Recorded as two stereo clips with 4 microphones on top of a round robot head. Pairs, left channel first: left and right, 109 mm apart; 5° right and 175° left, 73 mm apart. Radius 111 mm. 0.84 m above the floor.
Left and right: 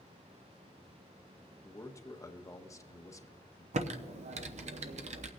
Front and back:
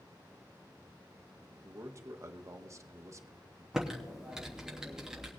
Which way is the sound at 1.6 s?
145° left.